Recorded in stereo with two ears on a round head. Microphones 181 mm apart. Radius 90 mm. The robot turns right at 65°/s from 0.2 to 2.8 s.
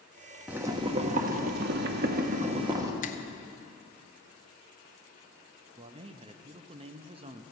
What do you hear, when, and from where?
0.5 s boiling: 175° right, 0.9 m; by 2.9 s 20° right, 0.9 m
3.0 s a finger snap: 40° left (ahead or behind), 0.7 m
5.8 s a man speaking: 30° right (ahead or behind), 0.6 m